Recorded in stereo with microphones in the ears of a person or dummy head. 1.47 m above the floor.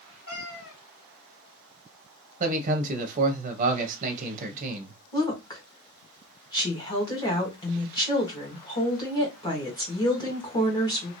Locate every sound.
0.3 s a cat meowing: 30° left (ahead or behind), 2 m
2.4 s a man speaking: 40° right (ahead or behind), 0.6 m
5.1 s a woman speaking: 20° left (ahead or behind), 1.4 m